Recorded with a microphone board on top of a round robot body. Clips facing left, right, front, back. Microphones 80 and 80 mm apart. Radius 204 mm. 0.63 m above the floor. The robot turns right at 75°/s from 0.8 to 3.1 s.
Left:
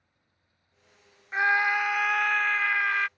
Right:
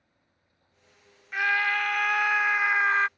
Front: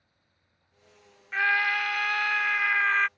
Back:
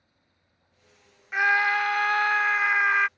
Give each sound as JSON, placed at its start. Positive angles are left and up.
{"t": 1.3, "sound": "a scream", "azimuth_deg": 120}